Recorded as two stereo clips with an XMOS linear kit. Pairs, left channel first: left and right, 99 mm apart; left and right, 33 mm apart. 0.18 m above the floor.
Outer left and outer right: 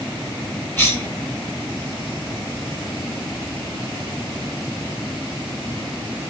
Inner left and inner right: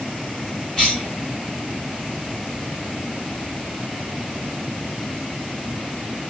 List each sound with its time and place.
0.8 s a cough: 20° left (ahead or behind), 1.7 m